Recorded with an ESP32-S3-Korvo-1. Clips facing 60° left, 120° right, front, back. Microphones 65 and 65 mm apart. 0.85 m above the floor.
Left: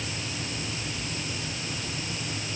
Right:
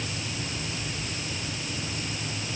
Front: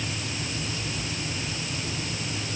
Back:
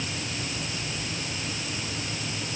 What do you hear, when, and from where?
Only background noise.